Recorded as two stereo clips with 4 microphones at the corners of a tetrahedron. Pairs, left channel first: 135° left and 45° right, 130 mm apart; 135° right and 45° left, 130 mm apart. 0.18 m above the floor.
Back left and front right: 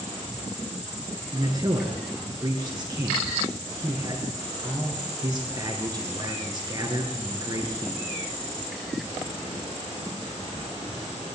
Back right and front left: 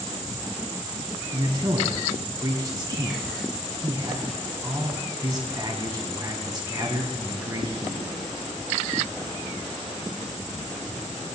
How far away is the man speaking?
About 2.0 m.